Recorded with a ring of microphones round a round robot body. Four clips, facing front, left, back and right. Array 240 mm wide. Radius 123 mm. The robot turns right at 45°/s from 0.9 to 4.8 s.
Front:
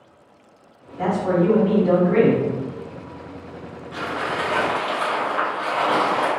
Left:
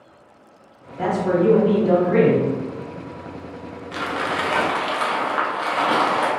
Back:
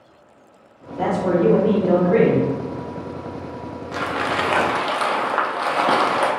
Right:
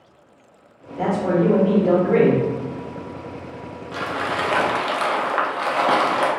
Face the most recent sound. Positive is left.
turn(degrees=-160)